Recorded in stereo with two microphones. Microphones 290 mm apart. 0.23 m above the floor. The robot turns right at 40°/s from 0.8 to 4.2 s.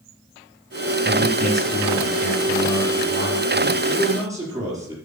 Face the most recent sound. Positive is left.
turn(degrees=-10)  # may be behind; listen again after turning